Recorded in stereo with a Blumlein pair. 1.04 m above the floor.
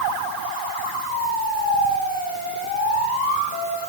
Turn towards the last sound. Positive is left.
No sound to turn to.